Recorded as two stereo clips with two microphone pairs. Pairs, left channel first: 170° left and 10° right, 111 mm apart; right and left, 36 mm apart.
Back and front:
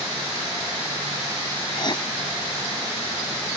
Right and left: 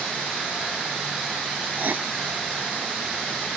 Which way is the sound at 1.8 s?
120° left.